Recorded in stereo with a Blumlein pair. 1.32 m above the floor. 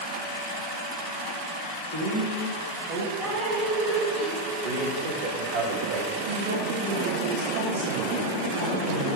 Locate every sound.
1.9 s a woman speaking: 70° right, 1.0 m; by 3.1 s 55° right, 1.7 m
3.2 s dripping: 5° left, 1.1 m
4.6 s a man speaking: 55° right, 1.5 m
6.3 s a woman speaking: 65° right, 1.8 m